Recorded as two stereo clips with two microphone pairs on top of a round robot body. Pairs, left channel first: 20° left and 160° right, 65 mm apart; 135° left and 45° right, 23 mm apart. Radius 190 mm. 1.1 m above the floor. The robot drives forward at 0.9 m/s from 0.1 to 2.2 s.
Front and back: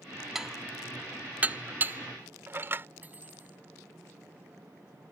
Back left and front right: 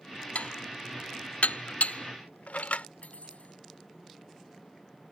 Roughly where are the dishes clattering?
Behind left.